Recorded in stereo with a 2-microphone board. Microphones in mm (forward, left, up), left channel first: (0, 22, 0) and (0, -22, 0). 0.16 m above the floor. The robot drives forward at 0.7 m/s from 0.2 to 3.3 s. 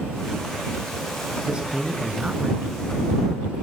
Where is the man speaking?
20° right (ahead or behind), 2.5 m; by 3.5 s 35° right (ahead or behind), 1.6 m.